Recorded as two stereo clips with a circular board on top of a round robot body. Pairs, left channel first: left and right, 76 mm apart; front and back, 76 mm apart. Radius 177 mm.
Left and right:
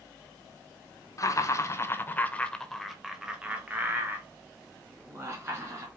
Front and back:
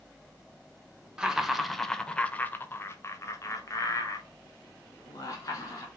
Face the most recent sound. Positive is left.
turn(degrees=-40)